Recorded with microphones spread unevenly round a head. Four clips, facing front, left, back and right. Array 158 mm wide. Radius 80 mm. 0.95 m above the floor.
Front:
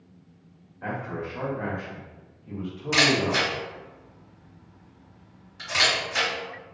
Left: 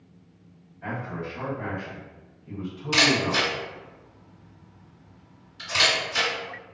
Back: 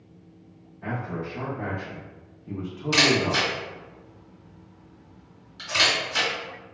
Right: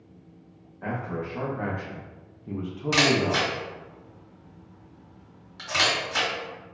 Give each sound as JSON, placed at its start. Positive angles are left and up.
{"t": 0.8, "sound": "a man speaking", "azimuth_deg": -50, "distance_m": 1.1}
{"t": 2.9, "sound": "a camera shutter", "azimuth_deg": -75, "distance_m": 1.7}